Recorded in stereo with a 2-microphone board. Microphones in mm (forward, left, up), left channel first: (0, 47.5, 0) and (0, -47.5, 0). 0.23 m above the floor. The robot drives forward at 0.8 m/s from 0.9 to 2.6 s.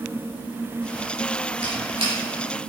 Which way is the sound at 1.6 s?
60° right (ahead or behind).